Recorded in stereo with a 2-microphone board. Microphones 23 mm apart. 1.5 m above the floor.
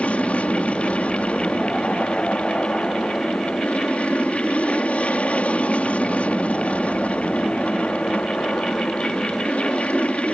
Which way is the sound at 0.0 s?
70° left (ahead or behind).